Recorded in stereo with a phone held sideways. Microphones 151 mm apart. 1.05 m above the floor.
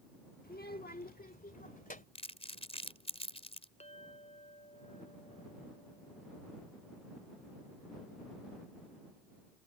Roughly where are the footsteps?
No footsteps in this recording.